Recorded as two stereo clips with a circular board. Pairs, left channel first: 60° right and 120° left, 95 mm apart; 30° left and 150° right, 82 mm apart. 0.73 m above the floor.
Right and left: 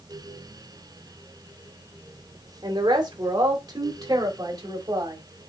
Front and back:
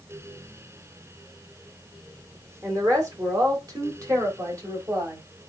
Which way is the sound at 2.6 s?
160° left.